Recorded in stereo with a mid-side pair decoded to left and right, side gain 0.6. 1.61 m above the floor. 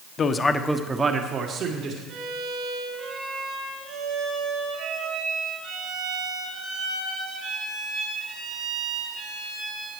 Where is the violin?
60° right, 5 m.